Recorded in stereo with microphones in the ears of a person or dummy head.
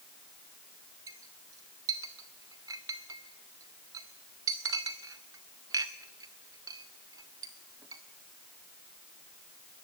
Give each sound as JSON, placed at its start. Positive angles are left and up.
{"t": 1.1, "sound": "a clink", "side_deg": -20, "distance_m": 0.7}